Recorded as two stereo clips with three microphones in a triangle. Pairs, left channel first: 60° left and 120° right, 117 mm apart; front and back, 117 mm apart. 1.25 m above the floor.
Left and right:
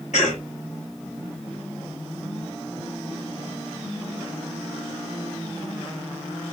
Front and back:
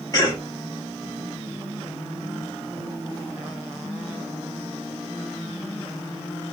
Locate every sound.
0.1 s a cough: 55° left, 2 m